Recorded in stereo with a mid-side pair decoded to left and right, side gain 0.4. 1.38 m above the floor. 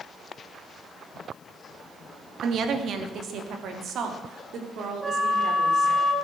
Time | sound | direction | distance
2.4 | a woman speaking | 65° right | 2.5 m
5.0 | a flute | 25° right | 4.5 m